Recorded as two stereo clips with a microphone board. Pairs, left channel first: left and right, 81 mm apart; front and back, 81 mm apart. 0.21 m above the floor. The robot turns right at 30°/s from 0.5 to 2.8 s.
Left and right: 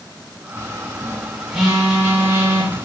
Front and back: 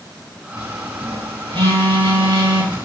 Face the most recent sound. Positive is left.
turn(degrees=-135)